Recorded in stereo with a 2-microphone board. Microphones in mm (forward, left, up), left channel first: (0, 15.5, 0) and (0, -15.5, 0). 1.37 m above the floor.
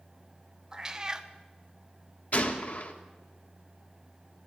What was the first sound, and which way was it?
A cat meowing, 20° right (ahead or behind).